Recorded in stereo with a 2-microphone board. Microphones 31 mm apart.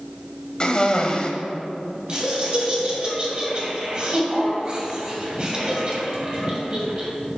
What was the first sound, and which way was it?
A cough, 30° left (ahead or behind).